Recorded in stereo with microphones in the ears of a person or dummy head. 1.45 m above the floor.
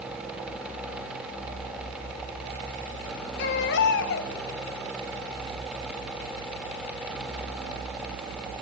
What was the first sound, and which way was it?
A baby crying, 65° left (ahead or behind).